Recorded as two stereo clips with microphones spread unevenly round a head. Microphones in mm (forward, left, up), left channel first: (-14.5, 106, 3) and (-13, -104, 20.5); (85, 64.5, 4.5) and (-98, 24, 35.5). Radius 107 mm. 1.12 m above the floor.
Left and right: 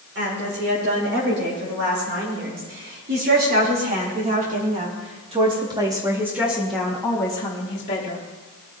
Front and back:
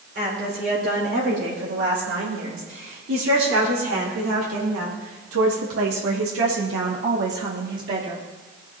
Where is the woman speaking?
120° right, 7 m; by 8.2 s 140° left, 2.5 m.